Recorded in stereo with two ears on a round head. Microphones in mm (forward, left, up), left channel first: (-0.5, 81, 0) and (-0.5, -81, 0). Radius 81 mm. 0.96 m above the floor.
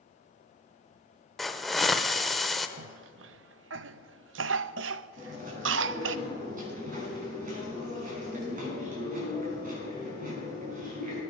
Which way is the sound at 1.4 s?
Centre (ahead or behind).